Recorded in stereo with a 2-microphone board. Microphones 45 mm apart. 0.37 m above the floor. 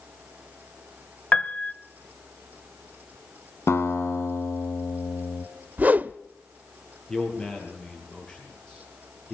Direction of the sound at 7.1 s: 20° left (ahead or behind).